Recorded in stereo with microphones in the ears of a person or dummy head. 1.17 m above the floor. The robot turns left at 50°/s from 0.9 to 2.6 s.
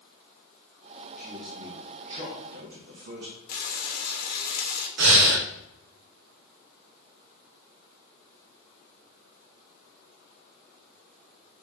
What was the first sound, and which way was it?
A man speaking, 10° left (ahead or behind).